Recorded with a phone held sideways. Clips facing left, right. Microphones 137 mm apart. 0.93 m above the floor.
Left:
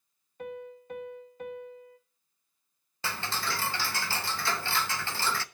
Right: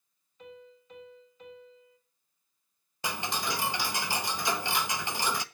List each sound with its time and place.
0.4 s a piano: 60° left (ahead or behind), 1.1 m
3.0 s ticking: 15° right (ahead or behind), 0.5 m